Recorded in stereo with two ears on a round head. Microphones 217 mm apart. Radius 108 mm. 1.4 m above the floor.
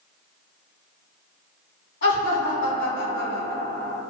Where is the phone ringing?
I don't hear a phone ringing.